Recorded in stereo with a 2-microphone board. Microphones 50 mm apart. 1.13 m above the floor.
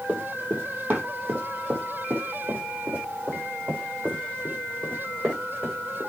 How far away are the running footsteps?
About 2.5 m.